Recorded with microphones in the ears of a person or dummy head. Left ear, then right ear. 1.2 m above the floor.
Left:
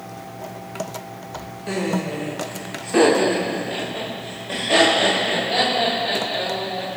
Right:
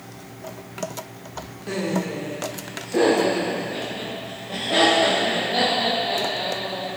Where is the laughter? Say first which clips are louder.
Left 2 dB; 15° left (ahead or behind), 1.8 m; by 7.0 s 70° left (ahead or behind), 5 m.